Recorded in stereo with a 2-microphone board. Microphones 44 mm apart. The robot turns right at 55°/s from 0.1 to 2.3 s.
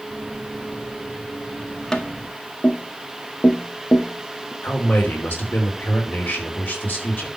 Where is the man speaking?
50° left (ahead or behind), 3.5 m.